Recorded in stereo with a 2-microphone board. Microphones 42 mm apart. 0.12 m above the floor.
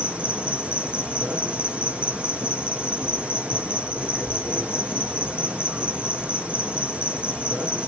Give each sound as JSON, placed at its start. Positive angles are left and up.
{"t": 0.0, "sound": "an insect", "side_deg": -25, "distance_m": 0.7}